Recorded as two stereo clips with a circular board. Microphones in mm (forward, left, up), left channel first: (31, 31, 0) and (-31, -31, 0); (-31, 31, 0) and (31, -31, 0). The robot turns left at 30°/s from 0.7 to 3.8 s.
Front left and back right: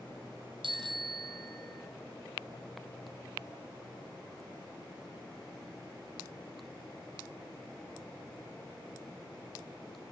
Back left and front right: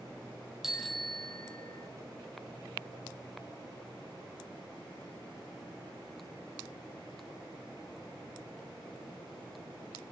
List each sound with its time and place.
0.6 s a bicycle bell: 130° right, 3 m; by 1.9 s 165° right, 3 m